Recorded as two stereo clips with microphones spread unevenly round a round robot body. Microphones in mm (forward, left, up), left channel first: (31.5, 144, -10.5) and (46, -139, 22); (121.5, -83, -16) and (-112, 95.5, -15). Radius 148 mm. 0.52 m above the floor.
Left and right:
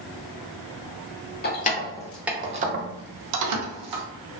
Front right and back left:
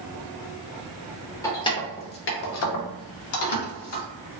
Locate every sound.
1.4 s keys jangling: 40° left, 0.7 m; by 4.0 s 75° right, 0.9 m